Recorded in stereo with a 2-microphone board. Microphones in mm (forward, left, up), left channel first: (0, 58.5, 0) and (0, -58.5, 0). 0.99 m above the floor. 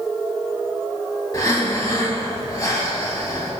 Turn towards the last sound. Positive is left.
turn(degrees=30)  # may be behind; listen again after turning